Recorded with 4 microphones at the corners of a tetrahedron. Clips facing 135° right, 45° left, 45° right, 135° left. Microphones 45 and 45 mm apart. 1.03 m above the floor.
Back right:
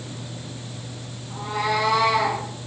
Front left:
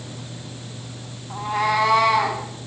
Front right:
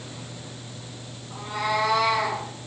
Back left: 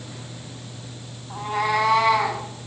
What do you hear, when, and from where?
1.3 s a cat meowing: 95° left, 3.5 m; by 2.4 s 100° left, 4.5 m